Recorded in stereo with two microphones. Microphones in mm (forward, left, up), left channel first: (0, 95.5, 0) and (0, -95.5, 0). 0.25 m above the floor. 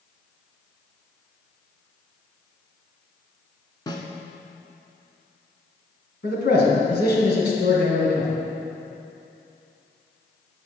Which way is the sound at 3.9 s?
20° left (ahead or behind).